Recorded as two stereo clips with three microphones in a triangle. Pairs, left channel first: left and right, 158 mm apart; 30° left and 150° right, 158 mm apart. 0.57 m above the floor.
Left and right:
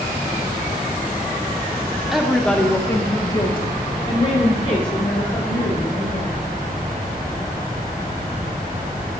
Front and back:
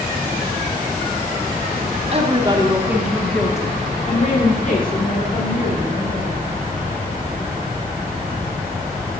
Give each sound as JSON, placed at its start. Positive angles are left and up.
{"t": 2.1, "sound": "a woman speaking", "azimuth_deg": 180, "distance_m": 1.6}